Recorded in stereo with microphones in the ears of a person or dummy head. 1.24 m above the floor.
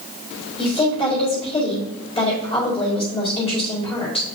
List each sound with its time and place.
0.6 s a woman speaking: 25° left (ahead or behind), 4 m